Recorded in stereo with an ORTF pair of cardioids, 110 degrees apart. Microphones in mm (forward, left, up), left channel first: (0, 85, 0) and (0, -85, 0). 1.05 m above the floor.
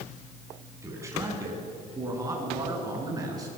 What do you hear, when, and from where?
0.8 s a man speaking: 15° right, 8.5 m; by 3.5 s 20° right, 10.5 m